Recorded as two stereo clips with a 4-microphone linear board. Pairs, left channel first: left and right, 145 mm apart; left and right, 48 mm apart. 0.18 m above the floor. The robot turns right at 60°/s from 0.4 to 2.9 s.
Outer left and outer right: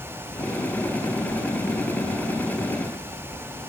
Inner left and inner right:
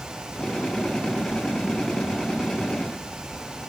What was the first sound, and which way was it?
Only background noise.